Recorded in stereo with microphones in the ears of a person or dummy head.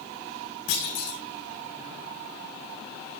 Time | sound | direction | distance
0.7 | a clunk | 75° left (ahead or behind) | 6 m